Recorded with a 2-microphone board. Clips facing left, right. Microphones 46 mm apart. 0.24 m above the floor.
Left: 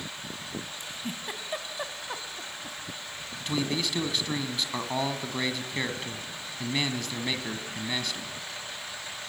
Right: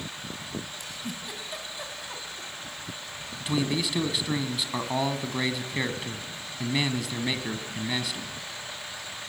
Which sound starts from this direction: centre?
A man speaking, at 3.4 s.